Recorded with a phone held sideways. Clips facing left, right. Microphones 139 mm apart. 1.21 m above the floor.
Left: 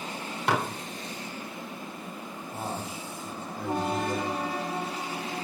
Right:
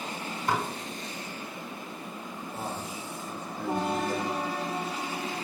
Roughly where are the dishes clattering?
Left.